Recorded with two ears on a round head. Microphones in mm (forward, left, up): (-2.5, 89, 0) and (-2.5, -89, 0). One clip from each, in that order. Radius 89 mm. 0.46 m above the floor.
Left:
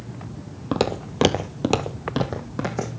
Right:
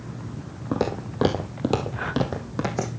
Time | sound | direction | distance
0.7 | footsteps | 65° left (ahead or behind) | 1.1 m